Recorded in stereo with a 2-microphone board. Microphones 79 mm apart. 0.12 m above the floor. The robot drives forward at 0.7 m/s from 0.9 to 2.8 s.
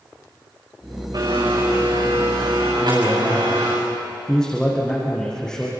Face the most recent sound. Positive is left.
turn(degrees=10)  # may be behind; listen again after turning